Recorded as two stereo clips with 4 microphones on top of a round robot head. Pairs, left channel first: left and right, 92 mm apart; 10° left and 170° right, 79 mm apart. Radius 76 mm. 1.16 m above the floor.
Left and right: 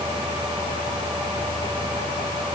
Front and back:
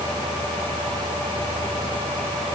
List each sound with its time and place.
Only background noise.